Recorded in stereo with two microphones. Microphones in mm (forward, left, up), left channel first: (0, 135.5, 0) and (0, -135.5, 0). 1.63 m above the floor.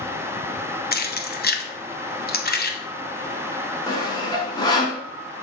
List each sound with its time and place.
0.9 s keys jangling: 35° left (ahead or behind), 0.7 m
3.9 s sawing: 15° left (ahead or behind), 1.6 m